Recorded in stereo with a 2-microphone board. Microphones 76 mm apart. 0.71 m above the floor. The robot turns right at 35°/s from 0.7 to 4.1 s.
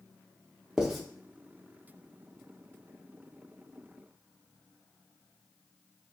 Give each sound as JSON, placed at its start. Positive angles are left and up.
{"t": 0.8, "sound": "writing", "side_deg": -10, "distance_m": 0.7}